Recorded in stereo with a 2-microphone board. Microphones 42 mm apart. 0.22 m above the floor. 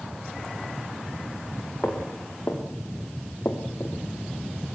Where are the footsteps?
55° left (ahead or behind), 4.5 m.